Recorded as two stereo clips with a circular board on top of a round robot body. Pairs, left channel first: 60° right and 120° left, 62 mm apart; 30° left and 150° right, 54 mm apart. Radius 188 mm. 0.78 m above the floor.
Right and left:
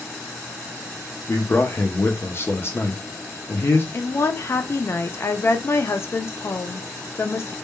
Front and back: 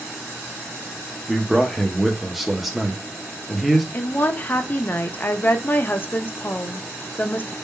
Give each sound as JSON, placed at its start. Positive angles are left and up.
{"t": 1.3, "sound": "a man speaking", "azimuth_deg": -65, "distance_m": 0.7}
{"t": 3.9, "sound": "a woman speaking", "azimuth_deg": -20, "distance_m": 0.5}